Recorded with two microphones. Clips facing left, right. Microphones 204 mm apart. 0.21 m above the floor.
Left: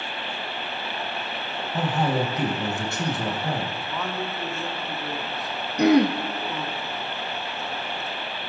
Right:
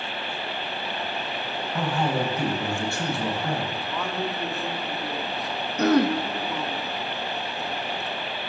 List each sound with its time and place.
1.7 s a man speaking: 20° left (ahead or behind), 1.3 m
3.8 s a man speaking: centre (ahead or behind), 1.2 m
5.8 s throat clearing: 15° left (ahead or behind), 0.6 m